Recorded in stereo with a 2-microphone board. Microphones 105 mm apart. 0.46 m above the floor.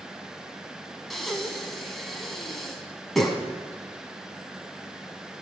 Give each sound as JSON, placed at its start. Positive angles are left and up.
{"t": 1.1, "sound": "breathing", "side_deg": 0, "distance_m": 1.6}